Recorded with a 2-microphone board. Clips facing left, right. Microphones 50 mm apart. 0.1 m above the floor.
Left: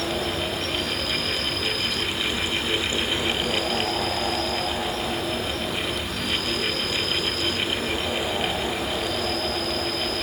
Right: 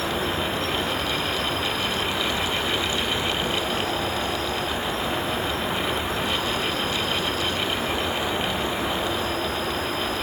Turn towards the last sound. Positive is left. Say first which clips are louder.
# right 1 dB
turn(degrees=-30)  # may be behind; listen again after turning